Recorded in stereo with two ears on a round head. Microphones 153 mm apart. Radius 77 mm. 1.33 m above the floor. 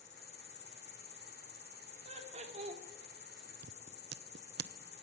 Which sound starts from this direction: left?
An insect, at 0.0 s.